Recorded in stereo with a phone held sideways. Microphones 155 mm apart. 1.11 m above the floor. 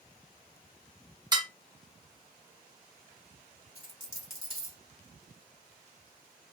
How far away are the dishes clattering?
About 0.6 m.